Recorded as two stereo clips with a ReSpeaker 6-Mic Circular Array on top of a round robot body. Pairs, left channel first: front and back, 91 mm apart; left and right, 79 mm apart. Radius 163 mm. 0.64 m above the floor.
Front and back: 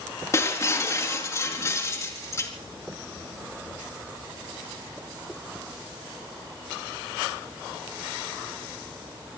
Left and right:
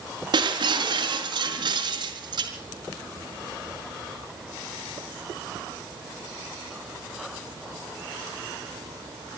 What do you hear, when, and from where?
0.3 s breaking glass: 60° right, 4 m